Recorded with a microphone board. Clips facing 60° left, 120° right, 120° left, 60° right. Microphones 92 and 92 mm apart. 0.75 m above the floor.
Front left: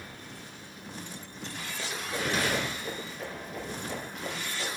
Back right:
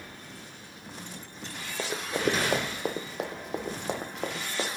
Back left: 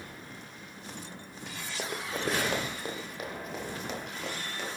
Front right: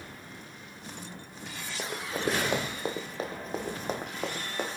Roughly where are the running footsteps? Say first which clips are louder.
Back right 6 dB, front right 2 dB; behind right.